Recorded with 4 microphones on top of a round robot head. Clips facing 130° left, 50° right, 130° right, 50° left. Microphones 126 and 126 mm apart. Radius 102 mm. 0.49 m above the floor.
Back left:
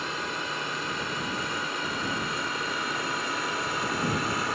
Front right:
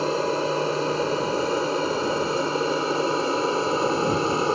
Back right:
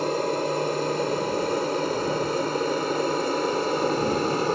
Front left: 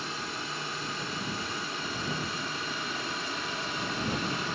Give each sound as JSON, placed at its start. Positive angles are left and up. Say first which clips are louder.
{"t": 0.0, "sound": "an aircraft", "louder": "front right 11 dB, back right 14 dB", "azimuth_deg": -95}